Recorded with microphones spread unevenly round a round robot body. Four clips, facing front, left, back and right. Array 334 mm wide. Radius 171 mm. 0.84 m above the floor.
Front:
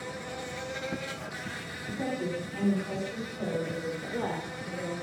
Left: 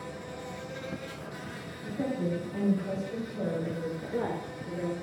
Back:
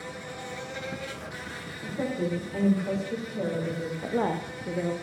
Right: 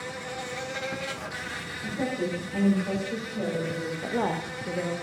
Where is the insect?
85° right, 0.9 m.